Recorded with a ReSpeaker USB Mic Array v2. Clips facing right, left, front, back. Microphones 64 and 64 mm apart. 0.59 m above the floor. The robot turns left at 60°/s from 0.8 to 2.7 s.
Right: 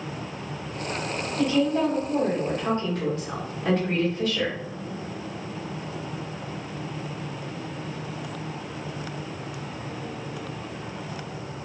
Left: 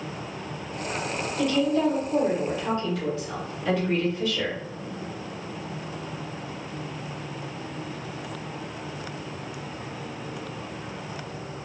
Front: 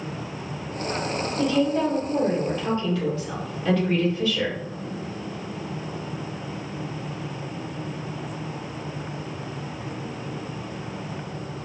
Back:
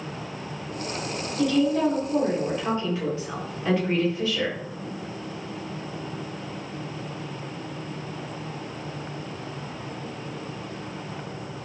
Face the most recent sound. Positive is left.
turn(degrees=-110)